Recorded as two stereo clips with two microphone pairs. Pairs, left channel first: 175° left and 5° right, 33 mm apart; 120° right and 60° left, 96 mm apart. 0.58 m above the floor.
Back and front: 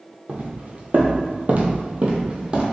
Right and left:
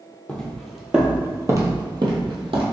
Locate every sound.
0.3 s footsteps: 40° right, 1.0 m; by 2.6 s 55° left, 1.1 m